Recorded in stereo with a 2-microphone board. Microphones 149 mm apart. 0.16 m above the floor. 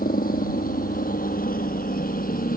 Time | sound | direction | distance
0.0 | a helicopter | 75° left (ahead or behind) | ?